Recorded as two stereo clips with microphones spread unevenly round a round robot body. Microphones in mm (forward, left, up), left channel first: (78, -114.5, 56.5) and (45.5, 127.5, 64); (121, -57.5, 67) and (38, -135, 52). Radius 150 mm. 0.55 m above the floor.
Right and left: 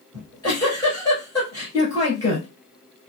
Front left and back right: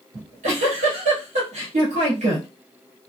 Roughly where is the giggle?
Behind.